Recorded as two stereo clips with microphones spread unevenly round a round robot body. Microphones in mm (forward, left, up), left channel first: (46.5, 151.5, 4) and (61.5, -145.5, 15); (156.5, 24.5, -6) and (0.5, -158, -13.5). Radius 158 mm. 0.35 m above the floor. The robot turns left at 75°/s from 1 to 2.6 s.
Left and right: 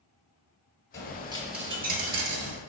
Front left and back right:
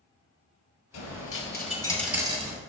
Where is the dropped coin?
40° left, 1.3 m; by 2.6 s 80° right, 1.3 m.